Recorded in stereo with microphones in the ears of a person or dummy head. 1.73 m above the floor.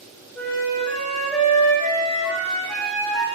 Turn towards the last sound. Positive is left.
turn(degrees=5)  # may be behind; listen again after turning